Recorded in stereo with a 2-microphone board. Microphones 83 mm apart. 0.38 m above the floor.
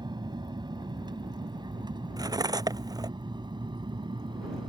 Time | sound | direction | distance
0.0 | an aircraft | 60° right (ahead or behind) | ?
2.2 | cutlery clinking | 50° right (ahead or behind) | ?